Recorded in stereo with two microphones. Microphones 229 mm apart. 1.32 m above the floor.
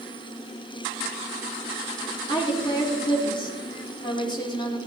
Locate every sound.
2.3 s a woman speaking: 20° left (ahead or behind), 3 m